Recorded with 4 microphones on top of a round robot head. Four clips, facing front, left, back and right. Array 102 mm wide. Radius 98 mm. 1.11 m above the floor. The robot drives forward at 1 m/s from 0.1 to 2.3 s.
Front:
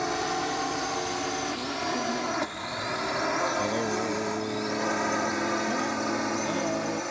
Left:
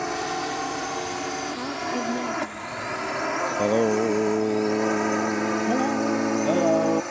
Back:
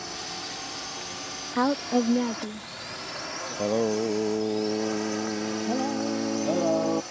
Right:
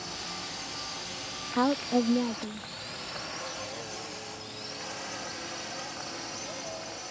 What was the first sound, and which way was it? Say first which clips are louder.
A drone: left 14 dB, front 10 dB; 55° left.